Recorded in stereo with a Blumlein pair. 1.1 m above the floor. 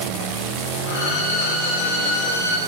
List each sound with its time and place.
0.9 s a violin: 65° left, 1.5 m